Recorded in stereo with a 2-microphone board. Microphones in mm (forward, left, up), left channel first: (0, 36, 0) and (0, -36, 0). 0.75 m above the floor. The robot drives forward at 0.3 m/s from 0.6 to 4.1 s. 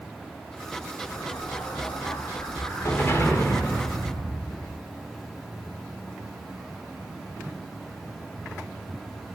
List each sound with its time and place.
1.1 s an explosion: 55° left (ahead or behind), 1.2 m; by 4.8 s 30° left (ahead or behind), 1.8 m